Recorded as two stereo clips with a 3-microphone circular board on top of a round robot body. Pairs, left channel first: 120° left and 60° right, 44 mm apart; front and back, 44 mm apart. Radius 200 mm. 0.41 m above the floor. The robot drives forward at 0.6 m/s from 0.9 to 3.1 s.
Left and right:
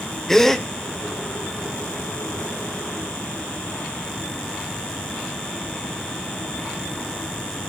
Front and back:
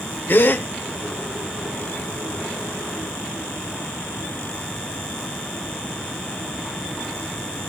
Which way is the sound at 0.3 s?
40° left.